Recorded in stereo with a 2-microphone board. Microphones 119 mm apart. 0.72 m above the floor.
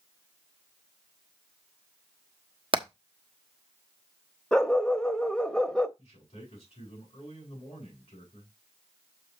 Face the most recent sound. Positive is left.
turn(degrees=50)  # may be behind; listen again after turning